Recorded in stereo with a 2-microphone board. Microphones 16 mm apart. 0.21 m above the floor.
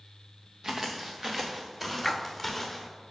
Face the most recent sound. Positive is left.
turn(degrees=20)  # may be behind; listen again after turning